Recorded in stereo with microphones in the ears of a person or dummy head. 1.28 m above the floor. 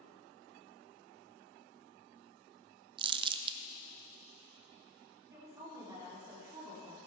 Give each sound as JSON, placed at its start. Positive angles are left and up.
{"t": 3.0, "sound": "crumpling", "side_deg": -20, "distance_m": 0.8}
{"t": 5.3, "sound": "a woman speaking", "side_deg": -25, "distance_m": 3.0}